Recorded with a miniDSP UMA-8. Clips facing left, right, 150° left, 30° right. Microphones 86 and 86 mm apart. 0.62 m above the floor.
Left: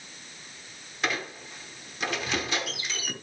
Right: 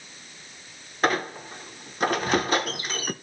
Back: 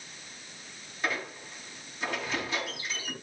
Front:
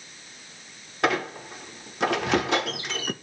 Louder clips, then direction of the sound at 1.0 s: Right 7 dB, front 9 dB; 45° right.